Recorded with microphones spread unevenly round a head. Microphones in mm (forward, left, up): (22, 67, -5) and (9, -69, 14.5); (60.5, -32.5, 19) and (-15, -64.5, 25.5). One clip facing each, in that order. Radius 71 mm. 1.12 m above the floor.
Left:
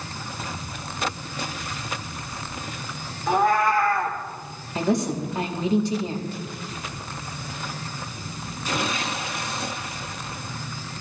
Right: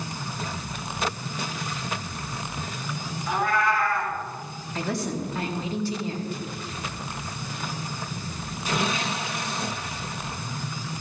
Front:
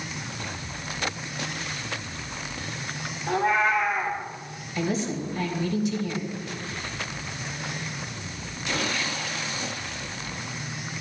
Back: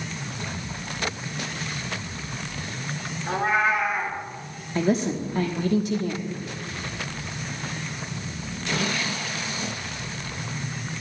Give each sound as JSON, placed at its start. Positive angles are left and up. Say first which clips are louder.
{"t": 3.3, "sound": "a cat meowing", "louder": "left 5 dB, even", "azimuth_deg": 145, "distance_m": 2.0}
{"t": 4.8, "sound": "a woman speaking", "louder": "left 5 dB, back 4 dB", "azimuth_deg": 155, "distance_m": 1.4}